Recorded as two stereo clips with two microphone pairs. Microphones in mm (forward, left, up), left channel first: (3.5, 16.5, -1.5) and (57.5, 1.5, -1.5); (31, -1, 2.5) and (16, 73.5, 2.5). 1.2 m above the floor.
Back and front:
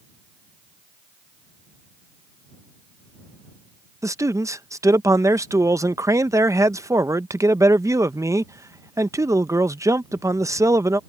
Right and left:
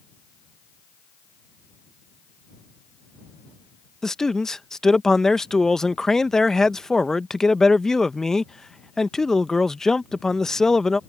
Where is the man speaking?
5° left.